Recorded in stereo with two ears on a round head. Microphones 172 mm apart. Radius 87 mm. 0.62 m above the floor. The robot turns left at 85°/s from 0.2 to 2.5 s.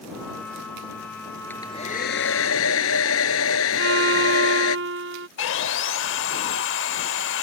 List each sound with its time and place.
1.5 s a hair dryer: 170° left; by 4.8 s 85° left
3.8 s a violin: 75° right (ahead or behind)
5.4 s sawing: 70° left (ahead or behind)